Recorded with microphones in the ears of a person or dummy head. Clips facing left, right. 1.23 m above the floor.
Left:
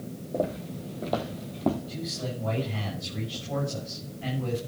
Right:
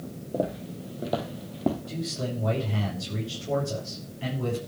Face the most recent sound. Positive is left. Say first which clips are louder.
# right 2 dB
turn(degrees=-70)  # may be behind; listen again after turning